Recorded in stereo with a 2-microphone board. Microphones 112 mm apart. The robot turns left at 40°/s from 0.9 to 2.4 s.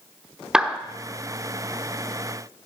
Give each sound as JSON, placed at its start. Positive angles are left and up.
{"t": 0.5, "sound": "a clap", "side_deg": -5, "distance_m": 1.0}